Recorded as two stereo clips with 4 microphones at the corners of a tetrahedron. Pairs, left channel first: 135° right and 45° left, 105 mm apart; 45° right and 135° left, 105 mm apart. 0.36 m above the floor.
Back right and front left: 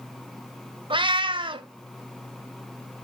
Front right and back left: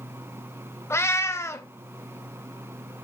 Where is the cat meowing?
15° left, 0.6 m.